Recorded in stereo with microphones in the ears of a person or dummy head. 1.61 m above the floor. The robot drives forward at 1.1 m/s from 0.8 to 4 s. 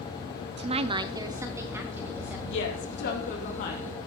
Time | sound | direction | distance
0.6 | a woman speaking | 30° right (ahead or behind) | 0.5 m
2.5 | a woman speaking | 70° left (ahead or behind) | 2.5 m